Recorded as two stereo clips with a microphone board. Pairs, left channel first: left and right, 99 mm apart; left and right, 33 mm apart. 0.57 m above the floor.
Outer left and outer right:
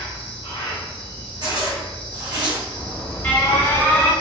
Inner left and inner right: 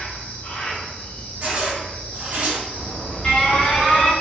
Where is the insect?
60° left (ahead or behind), 0.9 m.